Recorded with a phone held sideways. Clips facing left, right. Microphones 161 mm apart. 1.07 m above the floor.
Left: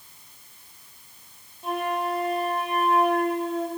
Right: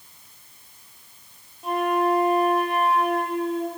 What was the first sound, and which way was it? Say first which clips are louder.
A flute: right 5 dB; centre (ahead or behind).